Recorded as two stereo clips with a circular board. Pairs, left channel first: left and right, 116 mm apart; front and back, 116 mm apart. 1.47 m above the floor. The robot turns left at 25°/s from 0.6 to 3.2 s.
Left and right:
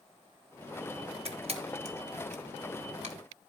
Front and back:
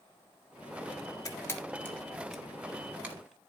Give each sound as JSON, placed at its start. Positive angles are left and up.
{"t": 1.2, "sound": "a camera shutter", "azimuth_deg": -60, "distance_m": 1.5}